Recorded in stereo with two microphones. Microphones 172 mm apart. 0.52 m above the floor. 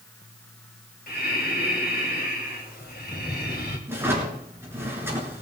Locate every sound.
1.1 s breathing: 65° left (ahead or behind), 2.5 m
3.9 s a drawer: 15° right (ahead or behind), 4 m